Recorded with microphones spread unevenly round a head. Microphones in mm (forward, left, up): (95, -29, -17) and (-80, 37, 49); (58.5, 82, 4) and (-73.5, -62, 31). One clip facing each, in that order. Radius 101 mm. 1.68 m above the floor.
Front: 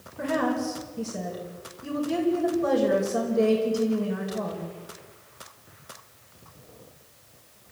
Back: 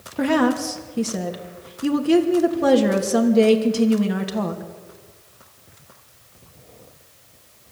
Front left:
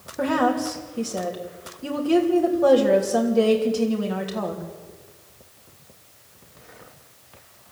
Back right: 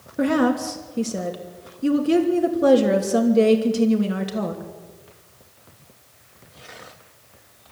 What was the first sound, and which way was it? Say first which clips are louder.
A woman speaking: back 7 dB, back right 3 dB; 160° left.